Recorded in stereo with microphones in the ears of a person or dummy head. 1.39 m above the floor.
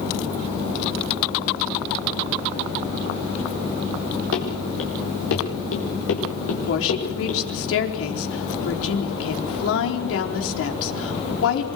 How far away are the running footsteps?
About 8 m.